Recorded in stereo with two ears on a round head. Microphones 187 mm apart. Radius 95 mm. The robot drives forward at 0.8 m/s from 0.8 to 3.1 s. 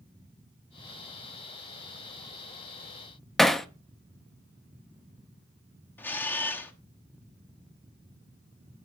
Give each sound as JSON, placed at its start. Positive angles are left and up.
{"t": 3.4, "sound": "hammering", "side_deg": 0, "distance_m": 0.5}
{"t": 6.0, "sound": "a camera shutter", "side_deg": 10, "distance_m": 1.0}